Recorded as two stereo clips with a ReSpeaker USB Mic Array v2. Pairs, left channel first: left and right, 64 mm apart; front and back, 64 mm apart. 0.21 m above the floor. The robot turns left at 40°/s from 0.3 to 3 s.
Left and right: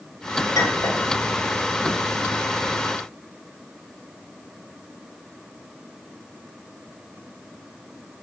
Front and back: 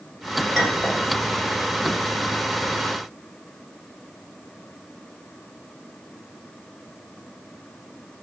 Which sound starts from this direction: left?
A clink, at 0.6 s.